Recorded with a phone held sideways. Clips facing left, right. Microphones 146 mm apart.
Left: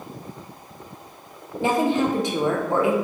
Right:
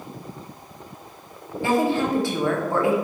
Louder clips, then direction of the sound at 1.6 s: Left 1 dB; 20° left (ahead or behind).